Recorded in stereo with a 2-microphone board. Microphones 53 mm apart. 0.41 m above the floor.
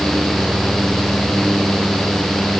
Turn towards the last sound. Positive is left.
No sound to turn to.